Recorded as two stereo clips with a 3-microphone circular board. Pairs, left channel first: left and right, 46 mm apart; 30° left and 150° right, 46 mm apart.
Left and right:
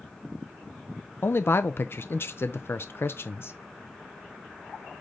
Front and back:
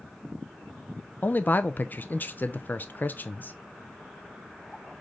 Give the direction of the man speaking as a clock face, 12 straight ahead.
10 o'clock.